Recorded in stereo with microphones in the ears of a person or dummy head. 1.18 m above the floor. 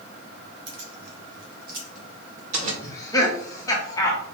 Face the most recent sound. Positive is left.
turn(degrees=15)  # may be behind; listen again after turning